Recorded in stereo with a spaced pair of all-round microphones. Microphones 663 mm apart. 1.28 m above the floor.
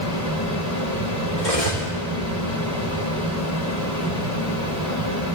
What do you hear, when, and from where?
0.0 s a fan: 30° left (ahead or behind), 3 m
1.4 s cutlery clinking: 55° left (ahead or behind), 2.5 m